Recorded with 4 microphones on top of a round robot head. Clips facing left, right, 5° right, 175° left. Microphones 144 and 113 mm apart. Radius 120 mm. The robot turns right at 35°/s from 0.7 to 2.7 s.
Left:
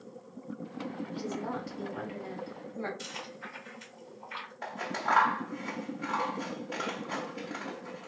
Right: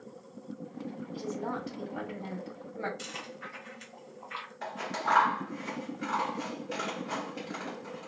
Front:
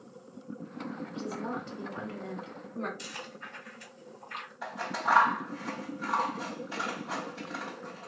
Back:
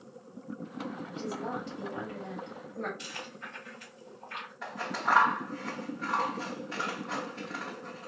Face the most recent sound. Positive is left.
turn(degrees=-90)